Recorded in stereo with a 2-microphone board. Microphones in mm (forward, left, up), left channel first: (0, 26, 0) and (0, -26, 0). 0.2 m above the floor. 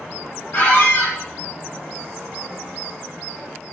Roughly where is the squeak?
Left.